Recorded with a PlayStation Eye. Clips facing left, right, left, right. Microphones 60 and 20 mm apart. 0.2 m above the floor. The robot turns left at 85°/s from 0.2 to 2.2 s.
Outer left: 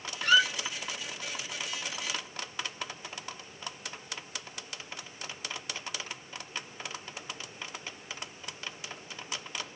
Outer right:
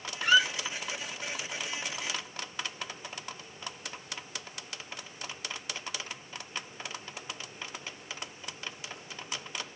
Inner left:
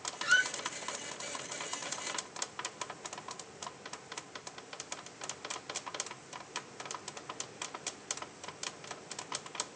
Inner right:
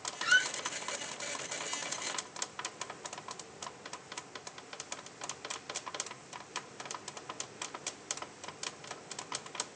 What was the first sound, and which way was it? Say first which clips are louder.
A squeak: even, inner right 1 dB; 25° right (ahead or behind).